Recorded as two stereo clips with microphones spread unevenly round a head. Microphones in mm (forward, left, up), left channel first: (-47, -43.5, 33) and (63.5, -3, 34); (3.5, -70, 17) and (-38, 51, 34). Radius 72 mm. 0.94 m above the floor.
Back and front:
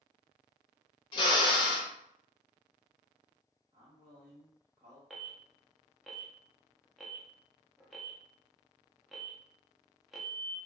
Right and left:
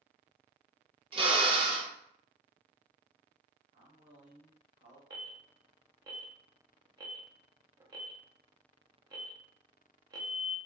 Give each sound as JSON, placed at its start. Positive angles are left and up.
{"t": 1.1, "sound": "a drill", "azimuth_deg": 155, "distance_m": 0.6}
{"t": 3.7, "sound": "a man speaking", "azimuth_deg": 75, "distance_m": 1.2}
{"t": 5.1, "sound": "an alarm", "azimuth_deg": 110, "distance_m": 0.6}